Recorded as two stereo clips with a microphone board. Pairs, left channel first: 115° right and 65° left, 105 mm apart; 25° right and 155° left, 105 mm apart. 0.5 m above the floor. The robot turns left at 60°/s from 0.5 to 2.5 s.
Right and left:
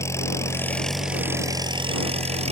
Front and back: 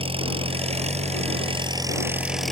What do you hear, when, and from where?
0.0 s an engine running: 175° right; by 2.5 s 65° left